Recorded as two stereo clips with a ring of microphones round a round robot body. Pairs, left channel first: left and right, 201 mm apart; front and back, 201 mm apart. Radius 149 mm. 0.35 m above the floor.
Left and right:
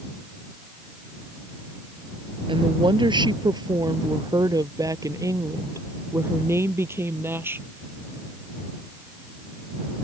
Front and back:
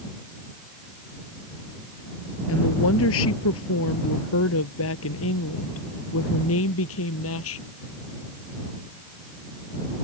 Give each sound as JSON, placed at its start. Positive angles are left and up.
{"t": 2.5, "sound": "a woman speaking", "azimuth_deg": -25}